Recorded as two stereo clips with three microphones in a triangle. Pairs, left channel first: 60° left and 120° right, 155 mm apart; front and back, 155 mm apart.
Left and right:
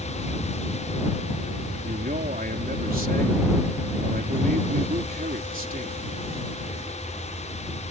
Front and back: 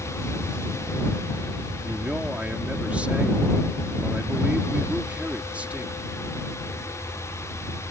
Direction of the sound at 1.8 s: 100° right.